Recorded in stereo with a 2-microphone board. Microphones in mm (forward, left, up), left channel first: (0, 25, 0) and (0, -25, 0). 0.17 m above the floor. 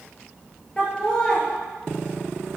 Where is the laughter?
20° left (ahead or behind), 3 m.